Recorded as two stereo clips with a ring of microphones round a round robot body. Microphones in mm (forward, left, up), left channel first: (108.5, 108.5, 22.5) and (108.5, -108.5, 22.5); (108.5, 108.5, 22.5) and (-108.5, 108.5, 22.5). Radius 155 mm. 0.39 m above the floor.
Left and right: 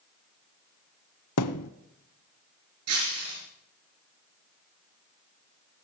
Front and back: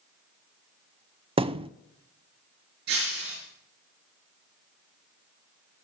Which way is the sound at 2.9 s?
120° right.